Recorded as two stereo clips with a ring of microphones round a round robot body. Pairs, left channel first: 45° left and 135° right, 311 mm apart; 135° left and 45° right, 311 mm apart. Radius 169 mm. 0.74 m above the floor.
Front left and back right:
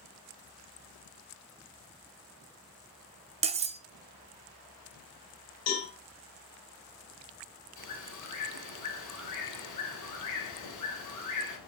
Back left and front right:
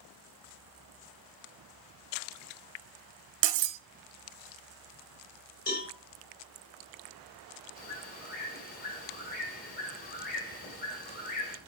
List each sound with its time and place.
3.4 s cutlery clinking: 65° right, 0.6 m
5.7 s a cowbell: 75° left, 4 m
7.8 s a bird: 75° left, 3 m